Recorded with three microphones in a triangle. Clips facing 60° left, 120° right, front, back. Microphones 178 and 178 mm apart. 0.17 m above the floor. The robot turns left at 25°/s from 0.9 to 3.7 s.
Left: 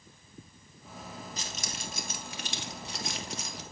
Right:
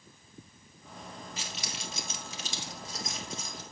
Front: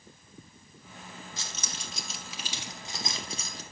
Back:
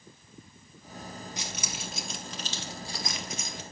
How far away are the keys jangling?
About 2 m.